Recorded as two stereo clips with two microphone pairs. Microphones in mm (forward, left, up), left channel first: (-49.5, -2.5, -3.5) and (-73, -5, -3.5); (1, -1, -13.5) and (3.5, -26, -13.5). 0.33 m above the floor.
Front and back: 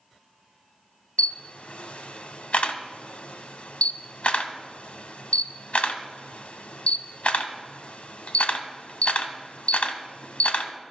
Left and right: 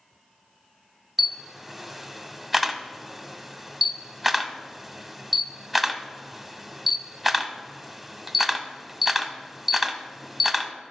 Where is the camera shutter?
Straight ahead, 0.7 m.